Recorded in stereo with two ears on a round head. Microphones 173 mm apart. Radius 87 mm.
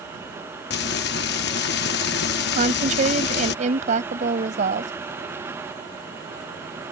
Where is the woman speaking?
40° right (ahead or behind).